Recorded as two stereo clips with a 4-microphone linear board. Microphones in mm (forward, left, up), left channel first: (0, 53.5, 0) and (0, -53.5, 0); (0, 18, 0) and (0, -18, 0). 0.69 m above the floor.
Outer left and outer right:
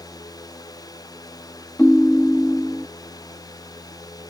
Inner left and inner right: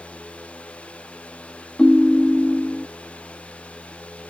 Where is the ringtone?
15° left (ahead or behind).